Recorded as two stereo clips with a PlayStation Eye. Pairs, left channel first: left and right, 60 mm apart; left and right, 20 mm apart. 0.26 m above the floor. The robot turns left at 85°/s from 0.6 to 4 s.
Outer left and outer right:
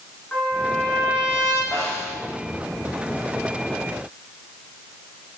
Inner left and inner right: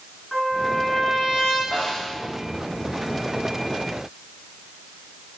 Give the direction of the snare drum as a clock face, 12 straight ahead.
4 o'clock.